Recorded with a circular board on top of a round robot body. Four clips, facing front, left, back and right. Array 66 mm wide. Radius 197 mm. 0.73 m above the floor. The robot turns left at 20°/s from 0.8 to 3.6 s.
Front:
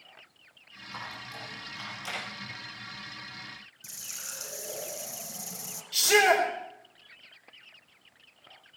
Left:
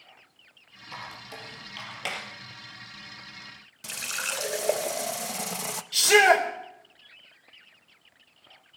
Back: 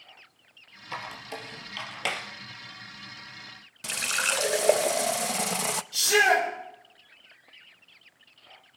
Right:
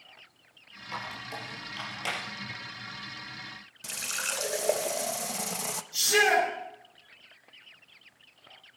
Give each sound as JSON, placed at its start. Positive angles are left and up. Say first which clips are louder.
{"t": 0.9, "sound": "a squeak", "louder": "right 3 dB, back 4 dB", "azimuth_deg": -175, "distance_m": 3.0}
{"t": 3.8, "sound": "a running tap", "louder": "left 2 dB, back 21 dB", "azimuth_deg": 170, "distance_m": 0.6}
{"t": 5.9, "sound": "a shout", "louder": "left 5 dB, even", "azimuth_deg": 70, "distance_m": 4.5}